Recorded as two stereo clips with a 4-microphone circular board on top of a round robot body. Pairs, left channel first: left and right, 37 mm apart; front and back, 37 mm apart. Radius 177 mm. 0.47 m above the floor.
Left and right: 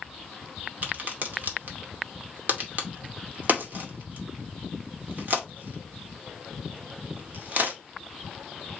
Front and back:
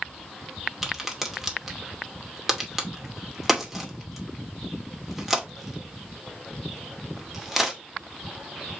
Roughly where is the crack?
Right.